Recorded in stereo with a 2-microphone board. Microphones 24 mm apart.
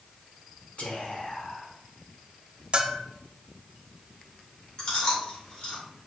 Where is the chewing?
40° left (ahead or behind), 2.5 m.